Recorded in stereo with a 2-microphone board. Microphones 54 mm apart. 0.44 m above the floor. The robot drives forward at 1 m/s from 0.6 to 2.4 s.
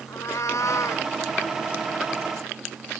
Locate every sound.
0.1 s a cat meowing: 80° left; by 1.1 s 60° left (ahead or behind)